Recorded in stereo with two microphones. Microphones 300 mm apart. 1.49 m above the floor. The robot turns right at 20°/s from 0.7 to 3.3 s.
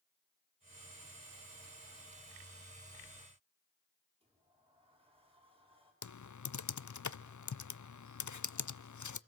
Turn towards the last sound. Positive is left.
turn(degrees=70)  # may be behind; listen again after turning